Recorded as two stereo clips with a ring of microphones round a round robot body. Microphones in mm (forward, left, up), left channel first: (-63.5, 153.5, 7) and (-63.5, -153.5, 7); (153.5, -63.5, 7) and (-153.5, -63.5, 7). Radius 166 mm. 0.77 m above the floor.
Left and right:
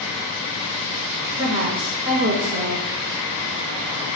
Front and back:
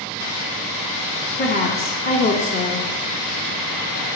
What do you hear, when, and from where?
1.4 s a woman speaking: 50° right, 0.8 m